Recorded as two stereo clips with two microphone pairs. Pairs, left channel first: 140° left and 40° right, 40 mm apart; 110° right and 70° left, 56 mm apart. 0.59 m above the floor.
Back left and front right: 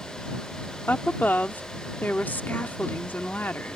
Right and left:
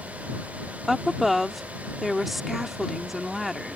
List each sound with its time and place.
0.9 s a woman speaking: 155° left